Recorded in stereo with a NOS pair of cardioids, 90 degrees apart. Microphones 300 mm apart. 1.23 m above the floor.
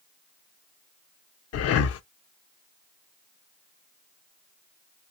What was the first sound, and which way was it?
Breathing, 55° left.